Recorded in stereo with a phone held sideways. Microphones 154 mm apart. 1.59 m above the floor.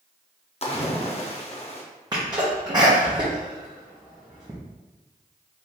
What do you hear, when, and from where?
0.6 s a splash: 45° left (ahead or behind), 0.6 m
2.1 s a sneeze: 25° right (ahead or behind), 0.7 m